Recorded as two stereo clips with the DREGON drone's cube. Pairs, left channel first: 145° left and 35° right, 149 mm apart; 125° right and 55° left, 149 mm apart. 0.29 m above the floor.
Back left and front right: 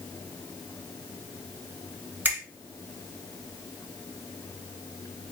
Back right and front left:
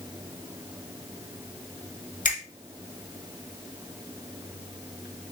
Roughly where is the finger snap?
Right.